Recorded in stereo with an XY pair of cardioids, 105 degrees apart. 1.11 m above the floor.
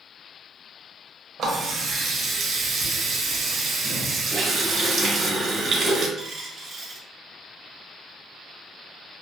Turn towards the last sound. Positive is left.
turn(degrees=-55)